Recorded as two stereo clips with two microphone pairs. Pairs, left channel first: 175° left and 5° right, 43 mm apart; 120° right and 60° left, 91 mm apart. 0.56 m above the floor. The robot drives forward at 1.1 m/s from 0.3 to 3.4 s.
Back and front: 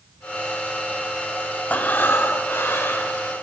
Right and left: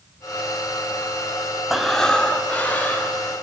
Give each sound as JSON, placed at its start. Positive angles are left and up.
{"t": 1.7, "sound": "breathing", "azimuth_deg": 145, "distance_m": 0.8}